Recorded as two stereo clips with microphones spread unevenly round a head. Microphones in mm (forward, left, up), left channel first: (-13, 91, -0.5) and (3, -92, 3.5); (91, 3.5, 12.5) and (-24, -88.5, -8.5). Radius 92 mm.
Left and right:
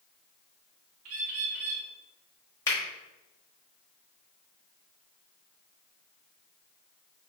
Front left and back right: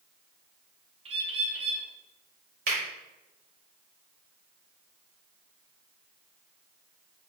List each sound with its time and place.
1.1 s a bird: 90° right, 1.0 m
2.7 s a finger snap: 170° left, 1.4 m